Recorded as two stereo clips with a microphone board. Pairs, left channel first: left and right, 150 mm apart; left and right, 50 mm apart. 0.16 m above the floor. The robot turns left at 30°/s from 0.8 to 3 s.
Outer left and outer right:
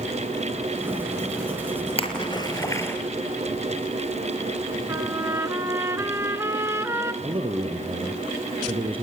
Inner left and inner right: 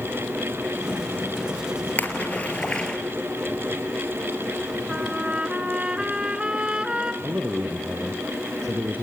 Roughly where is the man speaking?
Right.